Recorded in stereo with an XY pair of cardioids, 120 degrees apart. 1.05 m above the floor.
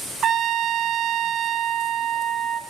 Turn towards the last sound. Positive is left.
turn(degrees=-45)